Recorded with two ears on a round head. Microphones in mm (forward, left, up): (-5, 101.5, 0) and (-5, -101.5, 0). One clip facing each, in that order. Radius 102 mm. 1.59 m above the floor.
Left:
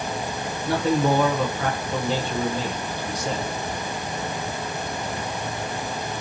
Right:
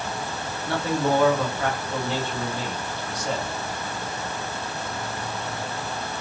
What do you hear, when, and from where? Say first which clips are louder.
0.7 s a man speaking: left 3 dB; 70° left (ahead or behind), 1.2 m